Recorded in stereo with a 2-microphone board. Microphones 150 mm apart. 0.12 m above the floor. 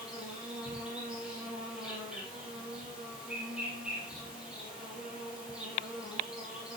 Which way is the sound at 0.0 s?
5° right (ahead or behind).